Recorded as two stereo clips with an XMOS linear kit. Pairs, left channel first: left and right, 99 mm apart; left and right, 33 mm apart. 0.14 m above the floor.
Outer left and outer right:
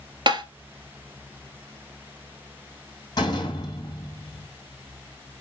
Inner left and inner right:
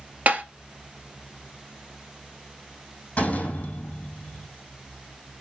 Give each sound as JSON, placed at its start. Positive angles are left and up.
{"t": 0.3, "sound": "tapping", "side_deg": -50, "distance_m": 0.9}
{"t": 3.2, "sound": "a door slam", "side_deg": 40, "distance_m": 4.0}